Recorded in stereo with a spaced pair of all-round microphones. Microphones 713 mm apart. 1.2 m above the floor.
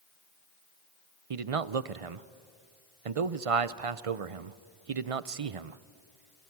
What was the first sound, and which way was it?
A man speaking, 50° right (ahead or behind).